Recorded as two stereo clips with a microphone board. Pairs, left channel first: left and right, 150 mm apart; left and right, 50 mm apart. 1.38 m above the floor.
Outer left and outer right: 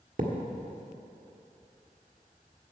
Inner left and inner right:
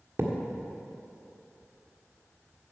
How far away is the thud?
About 1.6 m.